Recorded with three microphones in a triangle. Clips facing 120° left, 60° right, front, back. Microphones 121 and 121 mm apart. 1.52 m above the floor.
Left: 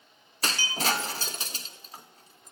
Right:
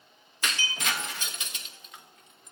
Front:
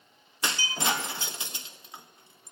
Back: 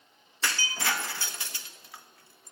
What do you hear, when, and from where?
0.4 s breaking glass: 65° left, 1.3 m